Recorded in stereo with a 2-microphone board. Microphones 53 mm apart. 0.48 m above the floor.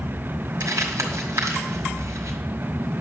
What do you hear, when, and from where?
0.6 s crumpling: 70° right (ahead or behind), 1.9 m